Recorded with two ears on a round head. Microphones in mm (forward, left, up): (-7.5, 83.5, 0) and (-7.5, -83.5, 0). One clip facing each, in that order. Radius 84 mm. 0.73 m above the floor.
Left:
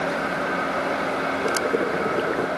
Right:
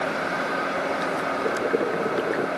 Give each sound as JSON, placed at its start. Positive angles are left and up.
{"t": 1.4, "sound": "boiling", "side_deg": -5}